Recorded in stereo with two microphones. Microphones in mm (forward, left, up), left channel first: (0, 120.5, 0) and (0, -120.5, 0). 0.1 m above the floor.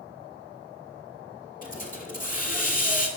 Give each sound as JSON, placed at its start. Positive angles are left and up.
{"t": 1.6, "sound": "a hiss", "side_deg": 35, "distance_m": 1.2}